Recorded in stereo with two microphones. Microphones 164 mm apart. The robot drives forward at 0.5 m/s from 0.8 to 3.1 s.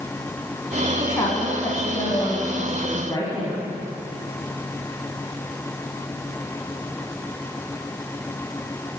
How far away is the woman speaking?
About 1.3 m.